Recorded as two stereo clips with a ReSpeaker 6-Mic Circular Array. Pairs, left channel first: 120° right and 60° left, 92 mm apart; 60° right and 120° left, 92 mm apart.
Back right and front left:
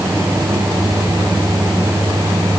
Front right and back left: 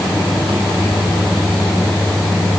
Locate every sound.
Only background noise.